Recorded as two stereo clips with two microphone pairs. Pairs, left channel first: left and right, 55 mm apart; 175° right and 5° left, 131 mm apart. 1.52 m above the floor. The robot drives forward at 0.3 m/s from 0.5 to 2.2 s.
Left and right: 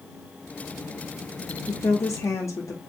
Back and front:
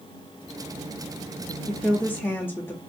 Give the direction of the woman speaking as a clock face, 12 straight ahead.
9 o'clock.